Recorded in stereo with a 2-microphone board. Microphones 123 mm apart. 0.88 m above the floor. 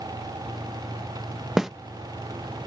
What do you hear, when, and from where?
1.6 s a snare drum: 5° right (ahead or behind)